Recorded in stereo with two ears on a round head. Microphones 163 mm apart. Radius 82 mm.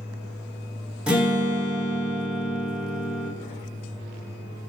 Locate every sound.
1.1 s a guitar: 5° right (ahead or behind), 1.3 m